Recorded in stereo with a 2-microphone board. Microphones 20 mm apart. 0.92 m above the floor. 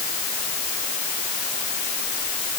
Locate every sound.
Only background noise.